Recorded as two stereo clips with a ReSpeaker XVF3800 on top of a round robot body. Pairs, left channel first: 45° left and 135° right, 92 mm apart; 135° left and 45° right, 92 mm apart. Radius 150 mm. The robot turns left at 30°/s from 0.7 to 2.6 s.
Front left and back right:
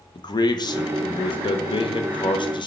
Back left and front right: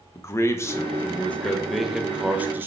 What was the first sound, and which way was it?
A man speaking, 75° left.